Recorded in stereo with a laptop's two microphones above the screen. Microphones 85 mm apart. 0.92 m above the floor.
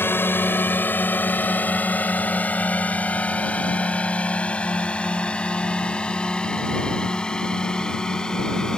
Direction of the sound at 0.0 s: 25° left (ahead or behind).